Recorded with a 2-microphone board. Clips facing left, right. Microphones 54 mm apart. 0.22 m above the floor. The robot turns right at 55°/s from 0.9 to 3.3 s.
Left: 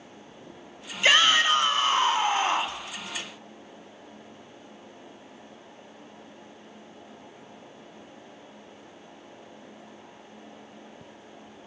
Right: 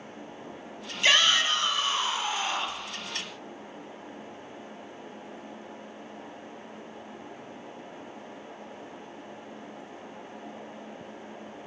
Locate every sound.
1.0 s a shout: 15° left, 1.4 m; by 2.8 s 115° left, 1.4 m